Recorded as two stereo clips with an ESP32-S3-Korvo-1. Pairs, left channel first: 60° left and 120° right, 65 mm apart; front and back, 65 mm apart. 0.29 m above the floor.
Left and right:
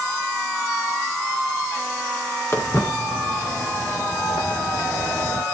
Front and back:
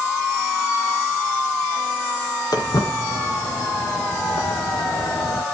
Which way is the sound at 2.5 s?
10° left.